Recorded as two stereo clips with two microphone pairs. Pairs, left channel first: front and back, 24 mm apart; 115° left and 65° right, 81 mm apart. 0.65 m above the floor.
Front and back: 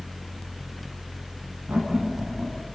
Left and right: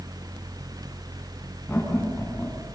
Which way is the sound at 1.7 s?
170° right.